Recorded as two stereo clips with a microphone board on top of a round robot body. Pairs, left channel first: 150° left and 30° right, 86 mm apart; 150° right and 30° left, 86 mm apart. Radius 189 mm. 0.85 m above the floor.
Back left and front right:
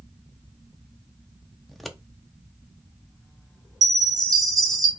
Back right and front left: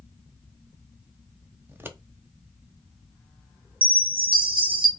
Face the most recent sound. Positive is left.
turn(degrees=15)